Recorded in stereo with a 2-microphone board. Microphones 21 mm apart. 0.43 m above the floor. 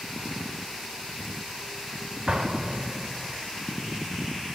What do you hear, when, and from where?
2.3 s an explosion: 40° right (ahead or behind), 1.8 m